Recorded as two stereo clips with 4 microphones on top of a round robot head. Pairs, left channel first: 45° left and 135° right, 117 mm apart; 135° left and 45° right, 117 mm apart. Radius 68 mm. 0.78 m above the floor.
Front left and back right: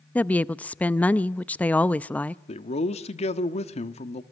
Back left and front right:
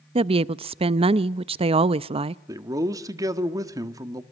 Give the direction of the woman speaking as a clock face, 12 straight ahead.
1 o'clock.